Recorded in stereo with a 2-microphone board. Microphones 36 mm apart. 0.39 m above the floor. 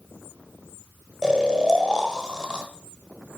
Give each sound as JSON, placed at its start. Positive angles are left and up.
{"t": 1.2, "sound": "snoring", "side_deg": -15, "distance_m": 1.1}